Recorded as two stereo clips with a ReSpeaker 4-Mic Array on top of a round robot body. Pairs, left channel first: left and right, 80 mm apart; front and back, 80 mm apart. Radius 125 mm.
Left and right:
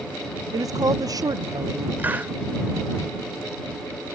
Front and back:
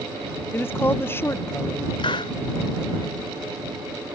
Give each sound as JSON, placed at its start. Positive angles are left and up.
{"t": 0.5, "sound": "a woman speaking", "azimuth_deg": -60}
{"t": 2.0, "sound": "a hiss", "azimuth_deg": -20}